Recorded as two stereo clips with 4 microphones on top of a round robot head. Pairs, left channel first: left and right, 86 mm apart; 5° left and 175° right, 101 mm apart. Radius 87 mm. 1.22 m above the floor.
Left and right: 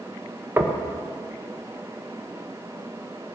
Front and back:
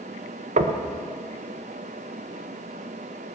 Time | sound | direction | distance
0.6 | knocking | 165° right | 1.0 m